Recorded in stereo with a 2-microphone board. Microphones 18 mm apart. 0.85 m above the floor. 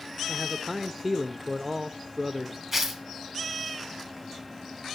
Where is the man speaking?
10° right (ahead or behind), 0.7 m.